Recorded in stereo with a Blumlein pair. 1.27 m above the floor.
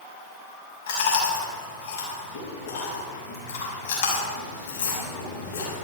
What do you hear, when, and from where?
0.9 s chewing: 60° left, 6 m